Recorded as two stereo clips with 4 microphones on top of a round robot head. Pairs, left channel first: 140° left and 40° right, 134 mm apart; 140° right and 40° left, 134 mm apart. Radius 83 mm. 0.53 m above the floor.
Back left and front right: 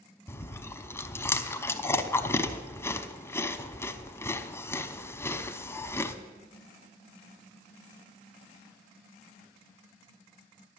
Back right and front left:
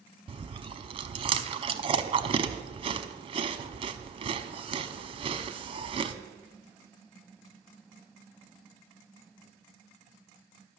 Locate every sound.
0.3 s chewing: 75° left, 0.8 m